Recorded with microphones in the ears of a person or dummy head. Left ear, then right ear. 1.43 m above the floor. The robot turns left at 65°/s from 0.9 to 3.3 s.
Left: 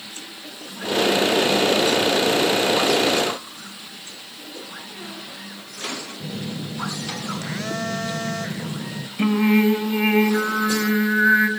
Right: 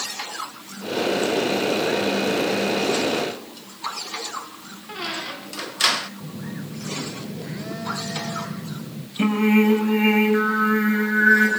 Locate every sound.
4.9 s a squeak: 55° right (ahead or behind), 0.9 m
6.2 s a phone buzzing: 50° left (ahead or behind), 1.1 m
9.2 s singing: 5° left (ahead or behind), 4 m